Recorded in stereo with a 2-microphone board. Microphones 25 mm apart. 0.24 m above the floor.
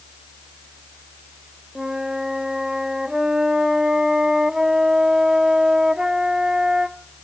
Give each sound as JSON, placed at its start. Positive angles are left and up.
{"t": 1.8, "sound": "a flute", "side_deg": -25, "distance_m": 0.6}